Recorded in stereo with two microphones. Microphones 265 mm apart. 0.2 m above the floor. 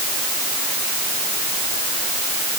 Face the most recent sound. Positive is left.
No sound to turn to.